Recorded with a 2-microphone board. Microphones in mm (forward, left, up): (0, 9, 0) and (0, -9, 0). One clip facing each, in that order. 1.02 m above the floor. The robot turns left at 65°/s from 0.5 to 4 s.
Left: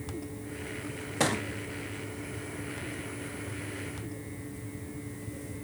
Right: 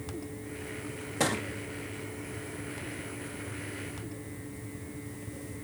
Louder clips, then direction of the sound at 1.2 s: Left 1 dB; 15° left (ahead or behind).